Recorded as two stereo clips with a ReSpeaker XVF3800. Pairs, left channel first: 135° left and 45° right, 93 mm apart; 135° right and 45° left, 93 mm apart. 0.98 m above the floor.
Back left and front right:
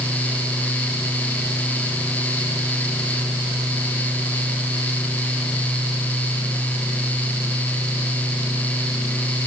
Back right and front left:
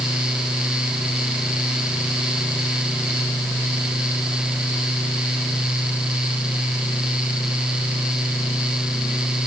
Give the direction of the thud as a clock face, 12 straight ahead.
I don't hear a thud.